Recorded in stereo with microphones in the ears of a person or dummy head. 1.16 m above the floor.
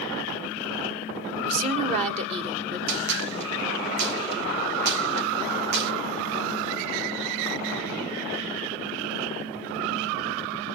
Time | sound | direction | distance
1.4 | a woman speaking | 35° right (ahead or behind) | 1.6 m
2.9 | a gunshot | 75° right (ahead or behind) | 1.3 m